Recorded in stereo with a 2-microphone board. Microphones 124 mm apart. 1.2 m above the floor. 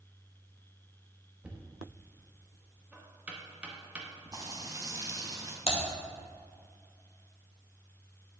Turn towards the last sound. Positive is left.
turn(degrees=55)  # may be behind; listen again after turning